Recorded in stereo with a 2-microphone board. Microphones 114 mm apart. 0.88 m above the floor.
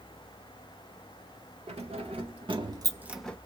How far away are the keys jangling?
About 2 m.